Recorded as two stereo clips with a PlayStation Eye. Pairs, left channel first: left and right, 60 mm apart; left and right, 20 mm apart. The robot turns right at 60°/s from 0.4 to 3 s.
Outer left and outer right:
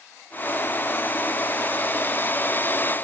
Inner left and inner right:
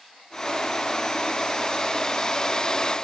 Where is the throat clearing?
I don't hear throat clearing.